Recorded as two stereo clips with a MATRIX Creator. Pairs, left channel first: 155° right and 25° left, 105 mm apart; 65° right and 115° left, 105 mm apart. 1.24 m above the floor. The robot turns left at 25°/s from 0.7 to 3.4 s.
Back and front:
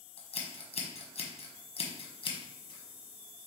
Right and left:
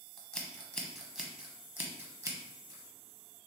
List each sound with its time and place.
0.2 s scissors: 150° right, 1.0 m; by 3.5 s 140° left, 1.0 m